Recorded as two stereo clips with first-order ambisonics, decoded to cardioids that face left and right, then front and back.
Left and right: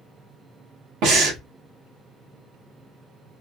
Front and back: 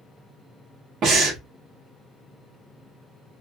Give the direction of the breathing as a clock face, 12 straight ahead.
4 o'clock.